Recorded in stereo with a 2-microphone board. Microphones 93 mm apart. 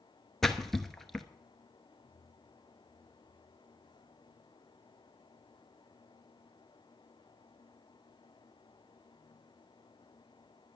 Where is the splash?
5° left (ahead or behind), 0.9 m.